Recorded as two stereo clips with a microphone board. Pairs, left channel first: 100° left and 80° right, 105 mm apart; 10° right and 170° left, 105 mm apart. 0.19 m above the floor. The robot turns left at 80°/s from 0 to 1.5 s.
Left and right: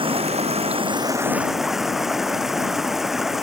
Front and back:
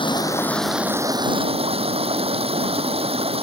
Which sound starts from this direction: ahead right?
Running water, at 0.0 s.